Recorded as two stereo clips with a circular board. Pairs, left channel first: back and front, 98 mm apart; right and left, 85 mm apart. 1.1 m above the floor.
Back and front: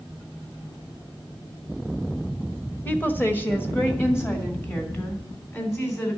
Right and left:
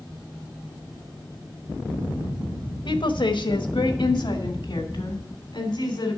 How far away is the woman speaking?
About 1.0 m.